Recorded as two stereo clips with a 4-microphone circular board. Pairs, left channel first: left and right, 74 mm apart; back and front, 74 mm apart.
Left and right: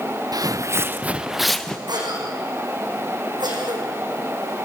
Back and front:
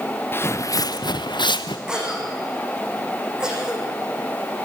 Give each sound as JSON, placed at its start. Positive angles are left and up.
{"t": 0.3, "sound": "footsteps", "azimuth_deg": -120, "distance_m": 0.8}
{"t": 1.9, "sound": "a cough", "azimuth_deg": -80, "distance_m": 6.0}